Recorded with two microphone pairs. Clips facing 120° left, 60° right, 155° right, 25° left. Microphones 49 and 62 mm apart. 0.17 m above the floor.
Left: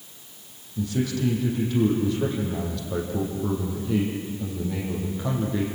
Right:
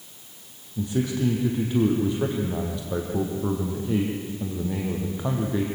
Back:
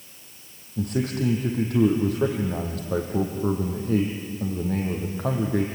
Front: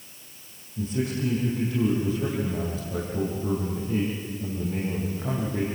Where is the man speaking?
125° right, 5.5 m.